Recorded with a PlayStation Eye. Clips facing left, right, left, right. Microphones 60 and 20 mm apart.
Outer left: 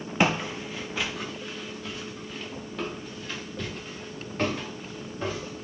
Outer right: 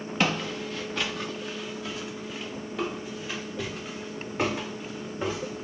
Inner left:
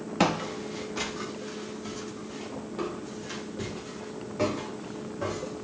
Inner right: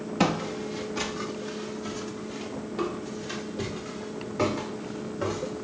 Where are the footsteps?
15° left (ahead or behind), 0.9 m; by 5.6 s 15° right (ahead or behind), 4 m.